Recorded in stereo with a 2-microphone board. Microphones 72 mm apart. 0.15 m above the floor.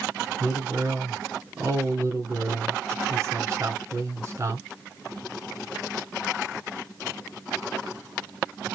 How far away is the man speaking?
About 1.9 m.